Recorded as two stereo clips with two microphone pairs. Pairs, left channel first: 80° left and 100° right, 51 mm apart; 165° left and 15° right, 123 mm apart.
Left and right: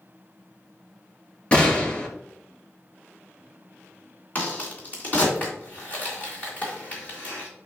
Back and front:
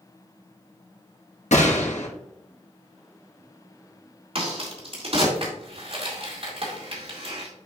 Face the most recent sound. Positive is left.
turn(degrees=25)